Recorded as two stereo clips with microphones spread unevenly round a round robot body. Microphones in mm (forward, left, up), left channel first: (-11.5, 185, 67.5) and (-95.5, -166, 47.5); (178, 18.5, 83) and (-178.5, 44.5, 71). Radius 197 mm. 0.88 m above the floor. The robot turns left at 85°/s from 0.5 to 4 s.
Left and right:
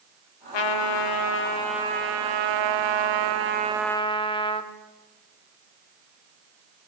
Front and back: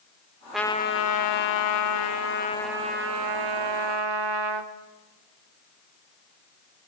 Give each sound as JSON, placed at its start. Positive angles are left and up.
{"t": 0.5, "sound": "a trumpet", "azimuth_deg": 90, "distance_m": 1.5}